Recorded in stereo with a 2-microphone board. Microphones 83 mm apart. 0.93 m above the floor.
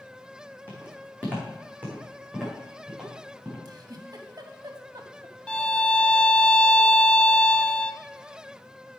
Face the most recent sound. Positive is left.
turn(degrees=15)  # may be behind; listen again after turning